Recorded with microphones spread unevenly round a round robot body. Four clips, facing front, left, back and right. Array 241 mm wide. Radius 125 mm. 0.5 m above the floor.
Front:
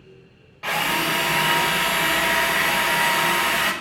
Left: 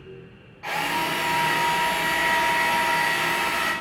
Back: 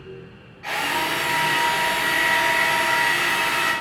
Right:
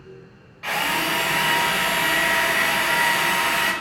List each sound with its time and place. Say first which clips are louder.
0.6 s a drill: right 1 dB, front 1 dB; 15° right, 1.0 m